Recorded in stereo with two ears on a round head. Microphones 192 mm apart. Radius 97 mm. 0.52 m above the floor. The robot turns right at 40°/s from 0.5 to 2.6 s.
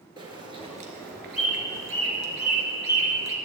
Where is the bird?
25° right (ahead or behind), 1.7 m; by 3.4 s 70° right (ahead or behind), 1.7 m.